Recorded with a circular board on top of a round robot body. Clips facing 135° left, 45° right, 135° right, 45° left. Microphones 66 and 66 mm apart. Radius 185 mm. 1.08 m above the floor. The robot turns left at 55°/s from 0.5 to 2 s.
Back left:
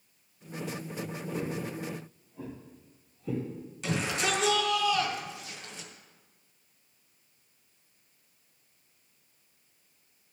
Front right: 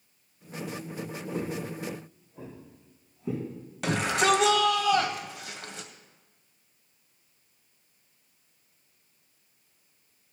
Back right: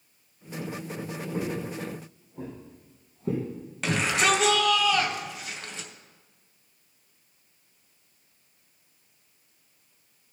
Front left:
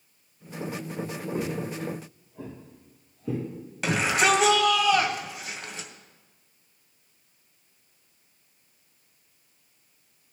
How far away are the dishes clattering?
No dishes clattering in this recording.